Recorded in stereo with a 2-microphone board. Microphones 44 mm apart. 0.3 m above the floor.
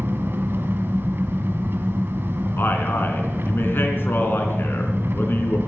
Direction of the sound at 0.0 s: 60° right (ahead or behind).